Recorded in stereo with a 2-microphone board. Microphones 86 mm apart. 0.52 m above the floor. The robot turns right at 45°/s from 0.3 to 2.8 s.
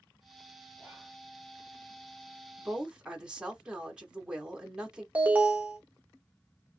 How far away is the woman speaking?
About 1.2 m.